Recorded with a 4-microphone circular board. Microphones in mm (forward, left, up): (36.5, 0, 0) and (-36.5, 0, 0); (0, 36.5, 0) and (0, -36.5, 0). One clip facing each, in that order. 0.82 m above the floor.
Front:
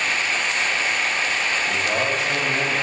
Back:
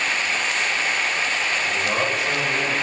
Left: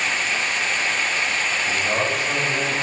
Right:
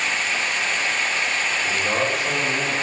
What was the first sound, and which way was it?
A man speaking, 100° right.